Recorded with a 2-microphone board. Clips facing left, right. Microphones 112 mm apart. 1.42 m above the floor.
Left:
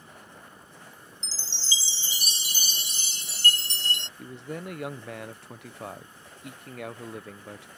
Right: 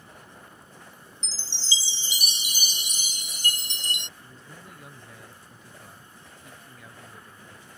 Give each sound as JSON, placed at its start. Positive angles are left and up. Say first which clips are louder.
{"t": 1.2, "sound": "a chime", "louder": "right 2 dB", "side_deg": -15}
{"t": 4.2, "sound": "a man speaking", "louder": "left 11 dB", "side_deg": 70}